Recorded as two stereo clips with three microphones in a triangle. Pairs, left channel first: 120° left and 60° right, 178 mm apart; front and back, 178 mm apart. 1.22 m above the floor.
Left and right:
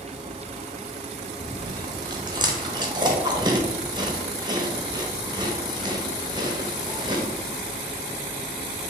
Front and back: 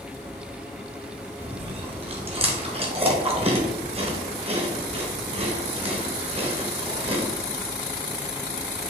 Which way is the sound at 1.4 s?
125° right.